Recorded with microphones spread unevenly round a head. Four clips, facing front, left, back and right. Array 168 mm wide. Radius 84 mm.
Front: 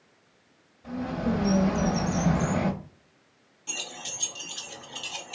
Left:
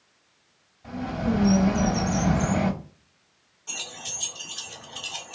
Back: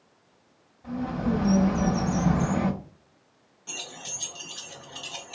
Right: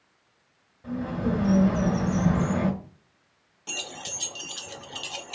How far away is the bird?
About 2.5 m.